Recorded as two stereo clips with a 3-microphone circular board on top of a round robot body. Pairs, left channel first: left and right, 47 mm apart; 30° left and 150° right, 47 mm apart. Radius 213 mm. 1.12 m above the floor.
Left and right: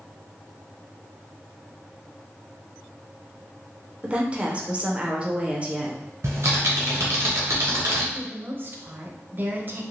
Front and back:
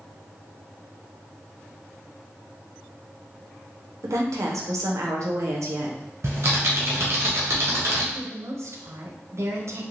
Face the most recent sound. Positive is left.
turn(degrees=-135)